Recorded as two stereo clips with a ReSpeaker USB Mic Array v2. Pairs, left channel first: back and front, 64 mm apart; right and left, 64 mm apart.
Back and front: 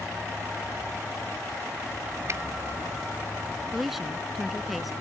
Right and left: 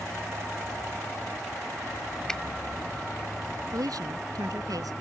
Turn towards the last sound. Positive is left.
turn(degrees=85)